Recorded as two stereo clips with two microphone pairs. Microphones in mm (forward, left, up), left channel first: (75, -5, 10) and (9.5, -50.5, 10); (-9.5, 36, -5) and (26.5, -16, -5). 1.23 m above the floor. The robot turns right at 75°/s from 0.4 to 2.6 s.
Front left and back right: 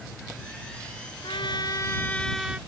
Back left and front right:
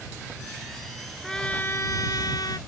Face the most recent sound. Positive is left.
turn(degrees=140)